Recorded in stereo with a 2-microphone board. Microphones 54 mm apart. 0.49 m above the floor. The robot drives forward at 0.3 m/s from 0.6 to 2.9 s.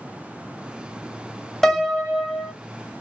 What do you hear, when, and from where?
1.6 s a piano: 5° left (ahead or behind), 0.8 m